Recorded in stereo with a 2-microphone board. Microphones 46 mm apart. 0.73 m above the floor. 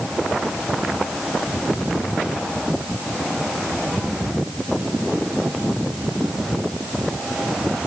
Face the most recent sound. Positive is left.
No sound to turn to.